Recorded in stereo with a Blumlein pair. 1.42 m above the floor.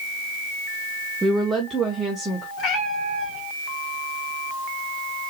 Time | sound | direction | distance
1.2 | a woman speaking | 10° right | 0.7 m
2.6 | a cat meowing | 35° left | 2 m